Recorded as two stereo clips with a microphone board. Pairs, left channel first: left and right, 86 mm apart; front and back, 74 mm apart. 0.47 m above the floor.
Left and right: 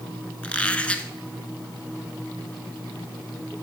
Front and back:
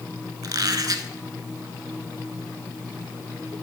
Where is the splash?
No splash in this recording.